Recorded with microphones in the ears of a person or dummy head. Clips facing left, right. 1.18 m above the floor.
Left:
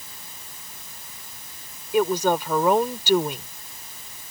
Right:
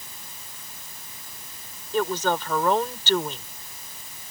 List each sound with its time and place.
1.9 s a woman speaking: 10° left (ahead or behind)